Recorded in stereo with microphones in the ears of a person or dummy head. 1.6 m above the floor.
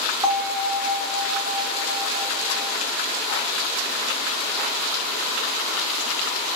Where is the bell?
20° right (ahead or behind), 0.7 m.